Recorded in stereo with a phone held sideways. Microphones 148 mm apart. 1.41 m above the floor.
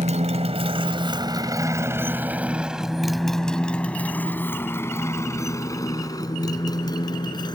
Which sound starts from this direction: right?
A motorcycle, at 0.0 s.